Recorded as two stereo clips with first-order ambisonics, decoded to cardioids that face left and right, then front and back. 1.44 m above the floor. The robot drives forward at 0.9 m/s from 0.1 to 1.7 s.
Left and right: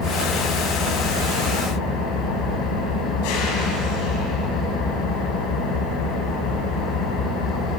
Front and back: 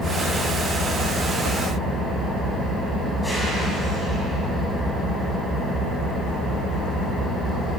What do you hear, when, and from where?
0.0 s an engine running: 70° left, 6 m; by 7.8 s 85° left, 6 m